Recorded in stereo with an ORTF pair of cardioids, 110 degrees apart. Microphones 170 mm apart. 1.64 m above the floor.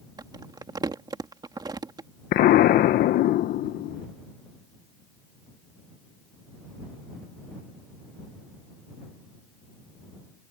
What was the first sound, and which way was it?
Crumpling, 25° right.